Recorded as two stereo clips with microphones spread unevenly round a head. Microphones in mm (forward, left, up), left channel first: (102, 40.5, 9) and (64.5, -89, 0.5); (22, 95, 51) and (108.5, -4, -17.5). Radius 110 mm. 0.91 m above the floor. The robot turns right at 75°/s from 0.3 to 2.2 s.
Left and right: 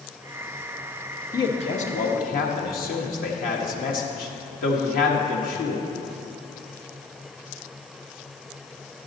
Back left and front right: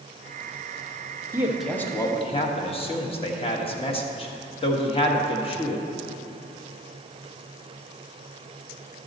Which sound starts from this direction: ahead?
A man speaking, at 1.3 s.